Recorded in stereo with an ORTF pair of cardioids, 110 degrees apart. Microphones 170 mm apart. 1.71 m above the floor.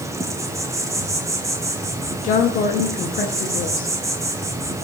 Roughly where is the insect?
Ahead.